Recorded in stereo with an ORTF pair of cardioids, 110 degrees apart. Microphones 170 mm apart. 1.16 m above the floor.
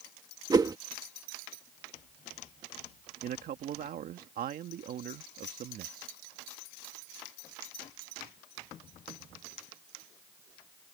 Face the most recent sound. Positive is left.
turn(degrees=-60)